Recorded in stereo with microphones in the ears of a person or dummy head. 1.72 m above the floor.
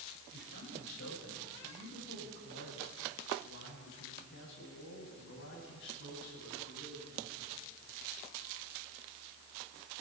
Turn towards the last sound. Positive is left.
turn(degrees=65)  # may be behind; listen again after turning